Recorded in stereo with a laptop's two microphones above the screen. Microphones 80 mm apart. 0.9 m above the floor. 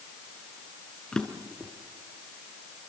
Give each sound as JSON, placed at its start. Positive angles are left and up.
{"t": 1.1, "sound": "a drawer", "side_deg": 10, "distance_m": 3.5}